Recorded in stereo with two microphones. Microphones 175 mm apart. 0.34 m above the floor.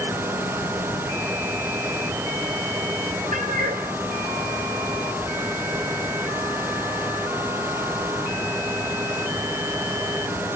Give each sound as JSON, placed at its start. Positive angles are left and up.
{"t": 3.3, "sound": "a cat meowing", "side_deg": -45, "distance_m": 3.0}